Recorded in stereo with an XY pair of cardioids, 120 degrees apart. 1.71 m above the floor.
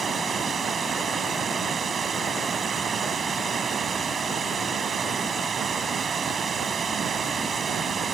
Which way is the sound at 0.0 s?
30° right.